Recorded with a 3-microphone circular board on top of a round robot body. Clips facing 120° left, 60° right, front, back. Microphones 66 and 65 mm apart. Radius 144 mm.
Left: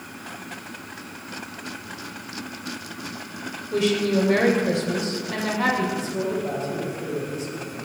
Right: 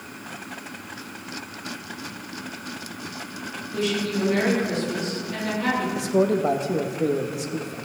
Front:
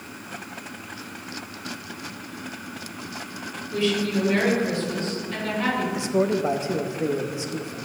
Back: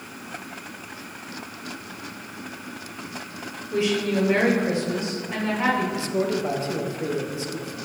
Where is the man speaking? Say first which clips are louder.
Right 5 dB, front 2 dB; 70° right, 1.8 m.